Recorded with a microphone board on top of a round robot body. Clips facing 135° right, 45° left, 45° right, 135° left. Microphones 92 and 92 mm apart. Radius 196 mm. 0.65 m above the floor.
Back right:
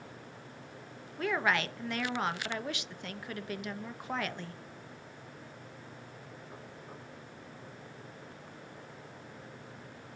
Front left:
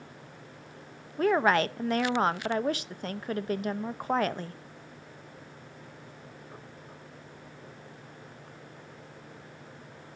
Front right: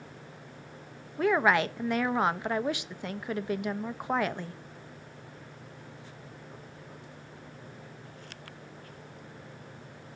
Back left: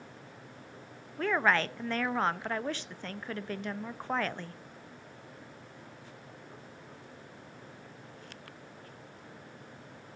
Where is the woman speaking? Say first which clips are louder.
Front left 7 dB, front right 4 dB; 25° left, 0.7 m.